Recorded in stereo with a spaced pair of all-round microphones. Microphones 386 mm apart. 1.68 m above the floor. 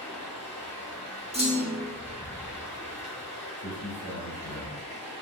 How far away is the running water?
About 0.9 m.